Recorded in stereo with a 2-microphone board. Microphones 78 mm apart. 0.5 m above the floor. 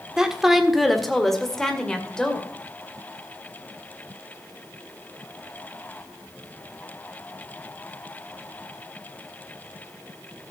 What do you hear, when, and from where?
0.2 s a woman speaking: 5° right (ahead or behind), 1.4 m; by 2.5 s 10° left (ahead or behind), 2.5 m